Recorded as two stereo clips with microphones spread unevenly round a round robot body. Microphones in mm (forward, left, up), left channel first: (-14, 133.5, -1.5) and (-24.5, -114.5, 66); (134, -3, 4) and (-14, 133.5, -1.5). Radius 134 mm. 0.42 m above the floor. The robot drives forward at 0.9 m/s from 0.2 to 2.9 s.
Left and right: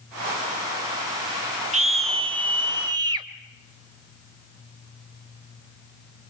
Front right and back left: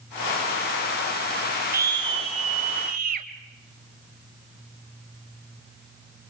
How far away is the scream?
About 1.0 m.